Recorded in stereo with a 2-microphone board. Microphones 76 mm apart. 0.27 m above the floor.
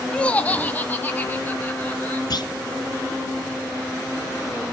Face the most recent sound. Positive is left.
turn(degrees=65)  # may be behind; listen again after turning